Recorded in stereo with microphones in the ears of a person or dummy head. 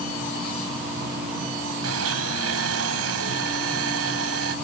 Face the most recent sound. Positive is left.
turn(degrees=-85)